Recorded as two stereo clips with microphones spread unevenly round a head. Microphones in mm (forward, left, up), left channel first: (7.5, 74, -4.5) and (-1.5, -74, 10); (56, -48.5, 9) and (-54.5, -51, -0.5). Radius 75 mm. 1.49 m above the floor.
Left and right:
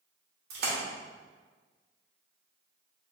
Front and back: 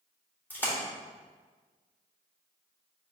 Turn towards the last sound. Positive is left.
turn(degrees=-70)